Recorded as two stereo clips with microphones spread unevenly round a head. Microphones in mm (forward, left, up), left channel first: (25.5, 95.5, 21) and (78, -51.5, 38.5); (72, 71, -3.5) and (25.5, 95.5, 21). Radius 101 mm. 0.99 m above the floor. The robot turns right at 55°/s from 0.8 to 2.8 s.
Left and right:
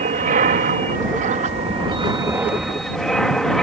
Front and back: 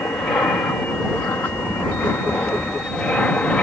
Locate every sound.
0.0 s an aircraft: 85° right; by 3.6 s 25° left